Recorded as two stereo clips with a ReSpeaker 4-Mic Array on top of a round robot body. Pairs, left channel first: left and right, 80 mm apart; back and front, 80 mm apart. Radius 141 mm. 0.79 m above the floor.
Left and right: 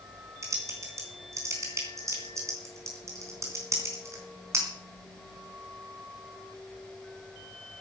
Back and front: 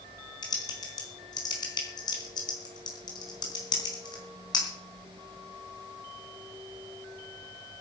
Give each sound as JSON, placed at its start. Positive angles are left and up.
{"t": 0.4, "sound": "typing on a keyboard", "azimuth_deg": -145, "distance_m": 3.5}